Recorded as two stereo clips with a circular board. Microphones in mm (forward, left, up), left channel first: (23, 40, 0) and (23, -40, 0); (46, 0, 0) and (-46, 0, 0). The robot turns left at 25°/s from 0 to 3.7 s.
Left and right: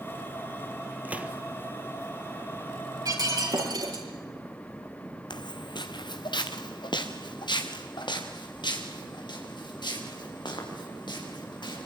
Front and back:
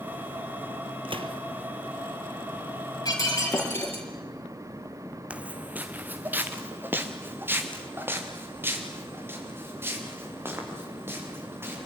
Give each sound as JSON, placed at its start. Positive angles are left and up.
{"t": 1.1, "sound": "a gunshot", "azimuth_deg": -160, "distance_m": 1.8}
{"t": 3.0, "sound": "breaking glass", "azimuth_deg": -50, "distance_m": 5.0}
{"t": 5.3, "sound": "footsteps", "azimuth_deg": 105, "distance_m": 0.9}